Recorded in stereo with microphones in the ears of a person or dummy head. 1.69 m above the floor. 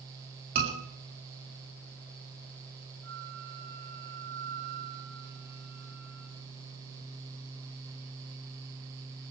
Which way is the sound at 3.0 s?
80° right.